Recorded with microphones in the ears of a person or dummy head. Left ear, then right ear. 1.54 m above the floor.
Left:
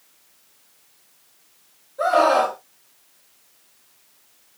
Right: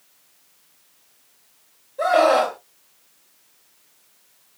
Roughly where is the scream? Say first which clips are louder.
Even; centre.